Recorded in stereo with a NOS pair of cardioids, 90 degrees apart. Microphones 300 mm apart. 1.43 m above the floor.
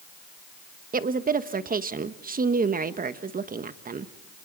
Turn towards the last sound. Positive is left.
turn(degrees=-30)